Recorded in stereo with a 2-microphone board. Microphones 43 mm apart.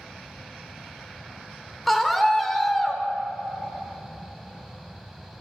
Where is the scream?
Centre (ahead or behind), 1.9 m.